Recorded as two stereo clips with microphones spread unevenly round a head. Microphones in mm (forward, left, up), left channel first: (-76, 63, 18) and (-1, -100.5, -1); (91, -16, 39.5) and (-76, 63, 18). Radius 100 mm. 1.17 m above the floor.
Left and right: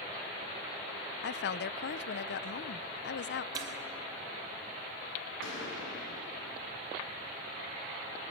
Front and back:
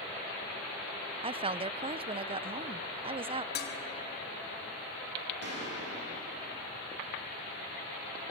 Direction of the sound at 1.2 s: 105° left.